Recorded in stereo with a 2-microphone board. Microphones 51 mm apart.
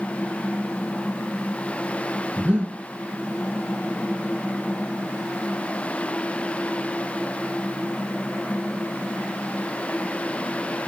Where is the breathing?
20° right (ahead or behind), 3 m.